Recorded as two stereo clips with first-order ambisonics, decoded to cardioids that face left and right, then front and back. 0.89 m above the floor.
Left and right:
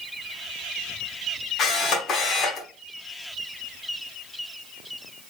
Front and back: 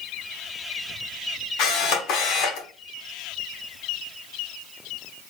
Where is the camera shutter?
35° left, 0.8 m.